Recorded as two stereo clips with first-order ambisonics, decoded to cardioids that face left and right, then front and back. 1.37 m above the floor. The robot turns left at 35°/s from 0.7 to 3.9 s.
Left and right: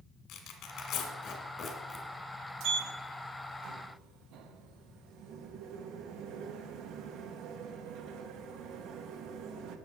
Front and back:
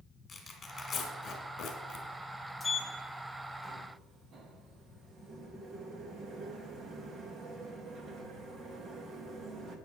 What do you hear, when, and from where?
0.3 s tearing paper: 60° left, 1.8 m; by 2.0 s 10° left, 1.8 m
2.6 s a sliding door: 75° right, 1.1 m; by 9.8 s 120° right, 1.1 m